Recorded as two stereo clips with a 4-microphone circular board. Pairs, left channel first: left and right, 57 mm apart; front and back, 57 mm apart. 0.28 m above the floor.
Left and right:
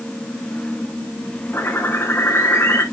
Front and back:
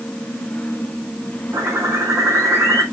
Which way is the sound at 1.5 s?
145° left.